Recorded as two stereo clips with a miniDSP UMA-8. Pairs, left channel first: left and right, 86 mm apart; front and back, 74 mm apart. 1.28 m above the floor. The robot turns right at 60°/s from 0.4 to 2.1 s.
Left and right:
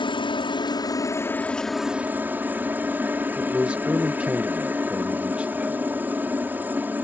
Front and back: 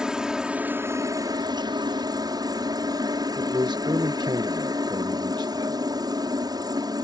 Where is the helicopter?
100° left; by 7.0 s 160° right.